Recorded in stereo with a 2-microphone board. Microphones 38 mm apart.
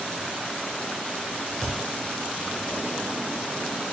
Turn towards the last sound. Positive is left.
turn(degrees=0)  # may be behind; listen again after turning